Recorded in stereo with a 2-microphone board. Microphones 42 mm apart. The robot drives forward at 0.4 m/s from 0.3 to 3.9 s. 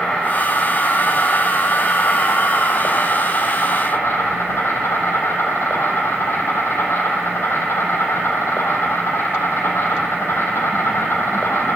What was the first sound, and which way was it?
An insect, 40° left (ahead or behind).